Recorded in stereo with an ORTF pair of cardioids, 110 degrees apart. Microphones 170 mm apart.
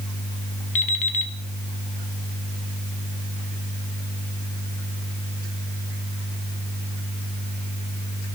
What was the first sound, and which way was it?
An alarm clock, 50° left.